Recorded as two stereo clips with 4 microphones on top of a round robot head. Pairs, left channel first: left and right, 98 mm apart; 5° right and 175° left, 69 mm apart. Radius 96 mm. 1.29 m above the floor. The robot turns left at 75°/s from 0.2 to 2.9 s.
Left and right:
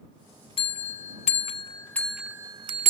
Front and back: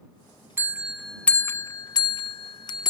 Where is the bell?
120° left; by 2.9 s 55° right.